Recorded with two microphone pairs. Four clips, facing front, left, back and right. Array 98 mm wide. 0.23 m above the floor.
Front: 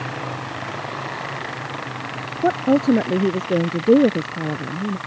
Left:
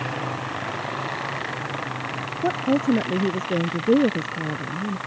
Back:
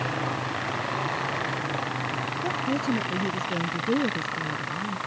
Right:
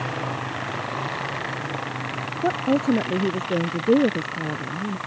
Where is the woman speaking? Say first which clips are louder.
Even, front 12 dB; 10° right.